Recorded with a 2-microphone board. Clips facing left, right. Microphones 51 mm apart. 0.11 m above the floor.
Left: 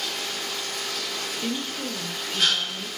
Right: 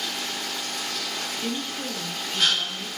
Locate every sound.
1.4 s a woman speaking: 5° left (ahead or behind), 2 m